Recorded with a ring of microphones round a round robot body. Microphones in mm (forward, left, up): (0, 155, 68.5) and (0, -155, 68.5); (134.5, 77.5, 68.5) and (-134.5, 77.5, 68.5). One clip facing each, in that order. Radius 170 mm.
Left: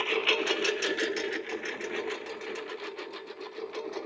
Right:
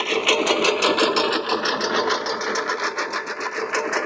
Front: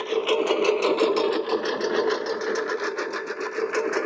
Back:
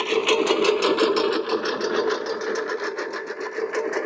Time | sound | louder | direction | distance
0.0 | a lawn mower | right 8 dB, back 2 dB | 120° right | ?